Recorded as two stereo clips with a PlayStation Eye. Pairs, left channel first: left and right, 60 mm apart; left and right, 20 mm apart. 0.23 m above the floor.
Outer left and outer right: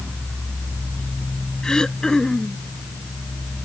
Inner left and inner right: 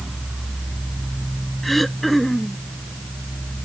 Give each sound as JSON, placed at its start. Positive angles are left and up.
{"t": 1.6, "sound": "throat clearing", "side_deg": 10}